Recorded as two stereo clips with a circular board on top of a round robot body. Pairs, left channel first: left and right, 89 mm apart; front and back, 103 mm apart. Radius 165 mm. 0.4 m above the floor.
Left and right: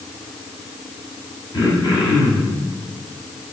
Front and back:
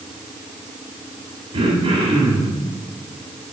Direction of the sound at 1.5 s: 140° left.